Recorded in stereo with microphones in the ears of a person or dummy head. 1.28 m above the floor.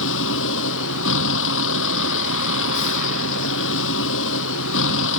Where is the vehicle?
70° left (ahead or behind).